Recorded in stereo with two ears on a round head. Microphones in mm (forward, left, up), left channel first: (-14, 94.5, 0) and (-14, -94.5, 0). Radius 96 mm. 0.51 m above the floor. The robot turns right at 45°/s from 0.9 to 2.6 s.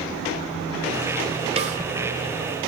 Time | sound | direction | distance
1.6 | a snare drum | 30° right (ahead or behind) | 1.4 m